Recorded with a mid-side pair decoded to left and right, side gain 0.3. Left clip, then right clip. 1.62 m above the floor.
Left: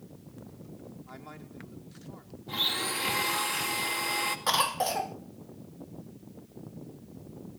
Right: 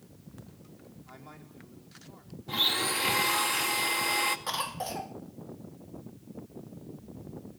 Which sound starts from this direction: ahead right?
A blender, at 2.5 s.